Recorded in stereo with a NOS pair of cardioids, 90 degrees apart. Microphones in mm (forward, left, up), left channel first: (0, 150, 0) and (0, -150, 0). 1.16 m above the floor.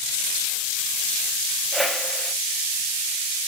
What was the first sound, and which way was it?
A whoosh, straight ahead.